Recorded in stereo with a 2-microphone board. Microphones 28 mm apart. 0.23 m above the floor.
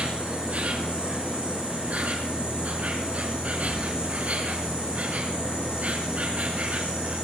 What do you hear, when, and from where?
0.0 s an insect: 60° right (ahead or behind), 3.5 m